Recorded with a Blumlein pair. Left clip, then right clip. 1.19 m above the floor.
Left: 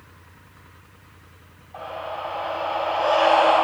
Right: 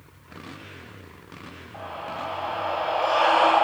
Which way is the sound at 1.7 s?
15° left.